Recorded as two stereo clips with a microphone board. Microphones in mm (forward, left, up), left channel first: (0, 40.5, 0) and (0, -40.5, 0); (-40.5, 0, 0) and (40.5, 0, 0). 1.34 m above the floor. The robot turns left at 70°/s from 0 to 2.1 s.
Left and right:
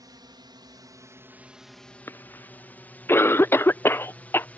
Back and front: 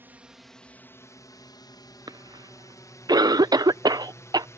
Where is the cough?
30° left.